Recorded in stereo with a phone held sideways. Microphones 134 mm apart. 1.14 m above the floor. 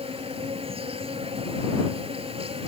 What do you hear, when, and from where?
0.0 s an insect: 45° right (ahead or behind)